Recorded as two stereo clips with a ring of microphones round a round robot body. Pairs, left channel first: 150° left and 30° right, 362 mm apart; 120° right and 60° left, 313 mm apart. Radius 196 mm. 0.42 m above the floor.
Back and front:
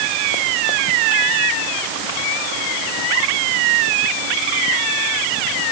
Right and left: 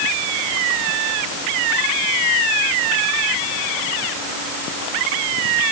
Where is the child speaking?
No child speaking in this recording.